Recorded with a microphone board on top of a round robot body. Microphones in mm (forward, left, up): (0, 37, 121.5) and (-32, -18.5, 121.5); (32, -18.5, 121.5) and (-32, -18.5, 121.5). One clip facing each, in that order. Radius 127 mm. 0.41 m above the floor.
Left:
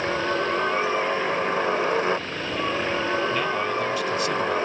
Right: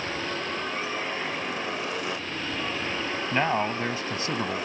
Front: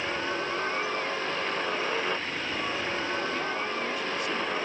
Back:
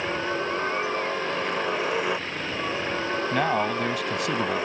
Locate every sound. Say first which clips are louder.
0.0 s a helicopter: left 7 dB, back 3 dB; 105° left
3.3 s a man speaking: left 1 dB, back 7 dB; straight behind